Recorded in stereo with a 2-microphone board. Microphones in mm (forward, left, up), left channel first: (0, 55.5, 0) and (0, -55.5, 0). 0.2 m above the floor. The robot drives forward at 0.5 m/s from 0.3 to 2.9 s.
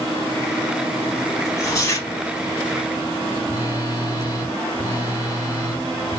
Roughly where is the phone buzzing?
Left.